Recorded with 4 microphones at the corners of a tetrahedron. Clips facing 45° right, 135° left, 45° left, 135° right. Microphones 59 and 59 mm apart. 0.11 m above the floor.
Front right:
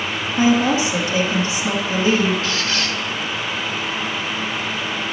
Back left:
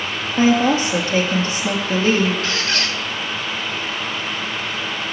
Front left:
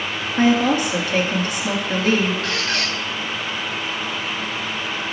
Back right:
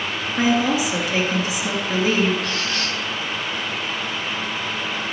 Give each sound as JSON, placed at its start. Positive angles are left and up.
{"t": 0.4, "sound": "a woman speaking", "azimuth_deg": 140, "distance_m": 2.5}
{"t": 2.4, "sound": "a squeak", "azimuth_deg": 95, "distance_m": 1.9}